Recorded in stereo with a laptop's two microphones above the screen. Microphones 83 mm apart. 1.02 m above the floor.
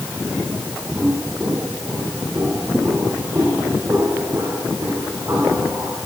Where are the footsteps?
25° right (ahead or behind), 4 m; by 6.0 s 35° right (ahead or behind), 6.5 m.